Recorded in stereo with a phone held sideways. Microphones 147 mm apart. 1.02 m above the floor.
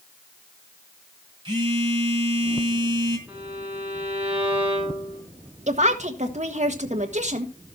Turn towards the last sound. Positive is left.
turn(degrees=-55)  # may be behind; listen again after turning